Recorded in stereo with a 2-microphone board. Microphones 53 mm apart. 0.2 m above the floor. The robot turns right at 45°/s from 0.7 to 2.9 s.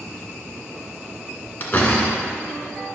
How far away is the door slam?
About 1.7 m.